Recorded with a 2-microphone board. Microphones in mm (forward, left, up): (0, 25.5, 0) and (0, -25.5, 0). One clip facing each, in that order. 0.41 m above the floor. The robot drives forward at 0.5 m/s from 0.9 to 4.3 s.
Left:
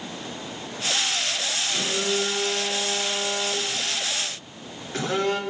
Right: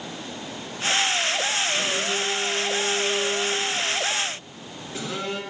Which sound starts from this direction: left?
A phone buzzing, at 1.7 s.